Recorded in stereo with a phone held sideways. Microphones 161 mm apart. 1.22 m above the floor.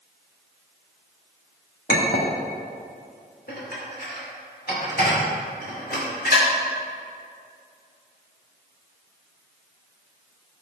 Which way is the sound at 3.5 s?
65° left (ahead or behind).